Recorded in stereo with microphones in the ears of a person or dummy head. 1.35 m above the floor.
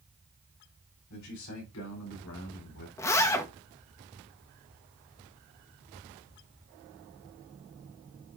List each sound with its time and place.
1.1 s a man speaking: 85° left, 4.5 m; by 2.9 s 80° left, 5 m
3.0 s a zipper: 15° left (ahead or behind), 1.1 m